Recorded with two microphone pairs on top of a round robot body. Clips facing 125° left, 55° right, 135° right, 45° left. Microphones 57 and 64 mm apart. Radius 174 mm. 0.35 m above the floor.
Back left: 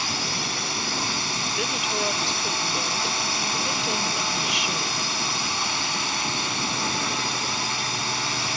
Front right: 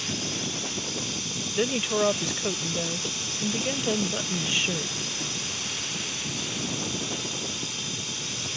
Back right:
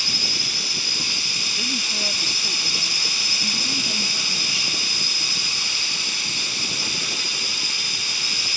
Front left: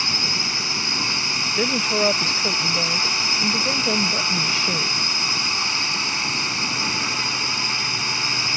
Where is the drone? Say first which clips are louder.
Back left 4 dB, front left 4 dB; 100° left.